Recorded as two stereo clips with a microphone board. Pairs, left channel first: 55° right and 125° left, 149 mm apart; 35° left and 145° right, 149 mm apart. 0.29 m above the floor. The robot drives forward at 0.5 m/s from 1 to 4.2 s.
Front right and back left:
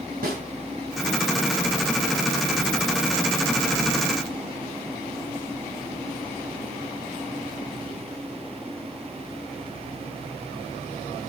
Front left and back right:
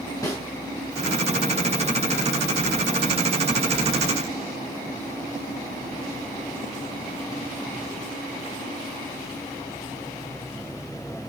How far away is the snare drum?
About 3.5 m.